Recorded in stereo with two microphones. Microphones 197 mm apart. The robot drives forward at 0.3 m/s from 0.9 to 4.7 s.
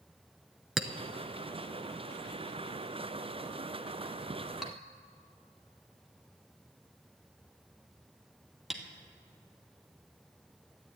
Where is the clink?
Centre (ahead or behind), 0.8 m.